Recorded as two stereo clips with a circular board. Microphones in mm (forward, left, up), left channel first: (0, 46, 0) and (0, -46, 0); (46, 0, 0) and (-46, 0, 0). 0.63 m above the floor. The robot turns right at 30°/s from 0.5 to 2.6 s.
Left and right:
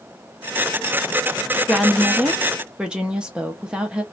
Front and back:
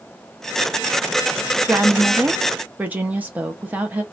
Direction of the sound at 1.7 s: 175° right.